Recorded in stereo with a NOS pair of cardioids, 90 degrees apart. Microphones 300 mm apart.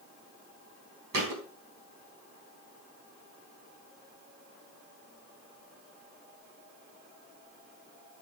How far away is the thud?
About 3.5 m.